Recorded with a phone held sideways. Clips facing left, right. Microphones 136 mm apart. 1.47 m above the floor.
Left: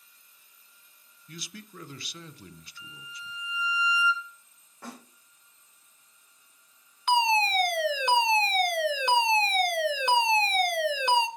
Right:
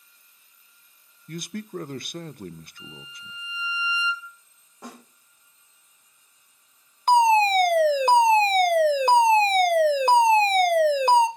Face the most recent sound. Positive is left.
turn(degrees=-40)  # may be behind; listen again after turning